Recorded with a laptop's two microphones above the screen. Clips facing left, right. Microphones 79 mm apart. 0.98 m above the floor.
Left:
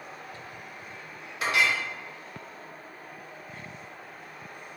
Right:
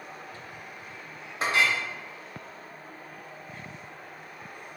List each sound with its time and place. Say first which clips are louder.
1.4 s a clink: even; 35° right (ahead or behind), 0.7 m